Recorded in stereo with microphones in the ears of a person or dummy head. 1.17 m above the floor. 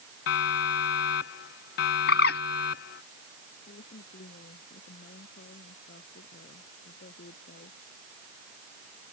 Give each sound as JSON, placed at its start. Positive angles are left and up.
{"t": 0.3, "sound": "a siren", "side_deg": 65}
{"t": 2.1, "sound": "a bird", "side_deg": 65}
{"t": 3.7, "sound": "a woman speaking", "side_deg": 45}